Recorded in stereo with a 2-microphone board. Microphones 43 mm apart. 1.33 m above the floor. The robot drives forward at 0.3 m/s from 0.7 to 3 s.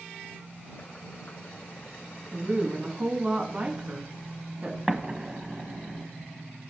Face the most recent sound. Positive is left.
turn(degrees=-25)  # may be behind; listen again after turning